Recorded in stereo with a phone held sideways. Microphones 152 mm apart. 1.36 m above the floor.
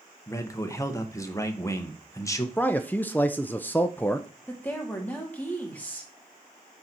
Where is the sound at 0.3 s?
20° left (ahead or behind), 1.0 m.